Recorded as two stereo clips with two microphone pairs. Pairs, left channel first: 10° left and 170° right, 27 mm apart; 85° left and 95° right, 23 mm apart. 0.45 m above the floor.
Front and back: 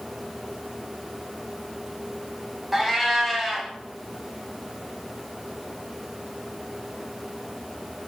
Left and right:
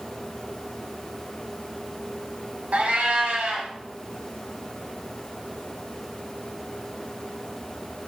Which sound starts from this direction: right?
A cat meowing, at 2.7 s.